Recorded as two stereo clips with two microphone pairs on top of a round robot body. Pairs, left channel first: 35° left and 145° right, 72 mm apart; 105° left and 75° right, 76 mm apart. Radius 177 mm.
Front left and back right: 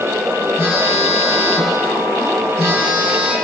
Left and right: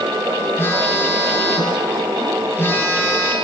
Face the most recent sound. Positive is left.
turn(degrees=165)